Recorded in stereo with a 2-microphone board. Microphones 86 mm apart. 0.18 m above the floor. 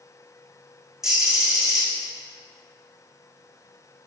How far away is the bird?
About 4.5 m.